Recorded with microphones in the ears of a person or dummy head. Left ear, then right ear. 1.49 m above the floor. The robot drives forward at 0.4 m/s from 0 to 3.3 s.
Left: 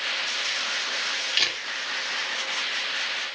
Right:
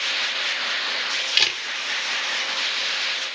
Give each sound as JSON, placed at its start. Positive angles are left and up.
{"t": 1.4, "sound": "a camera shutter", "side_deg": -5, "distance_m": 0.7}